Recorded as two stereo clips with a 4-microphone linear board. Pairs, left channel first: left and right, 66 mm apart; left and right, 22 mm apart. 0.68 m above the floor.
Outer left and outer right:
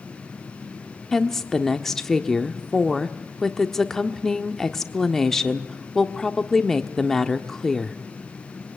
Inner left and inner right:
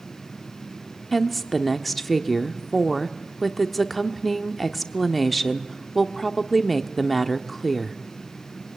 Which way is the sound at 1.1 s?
5° left (ahead or behind).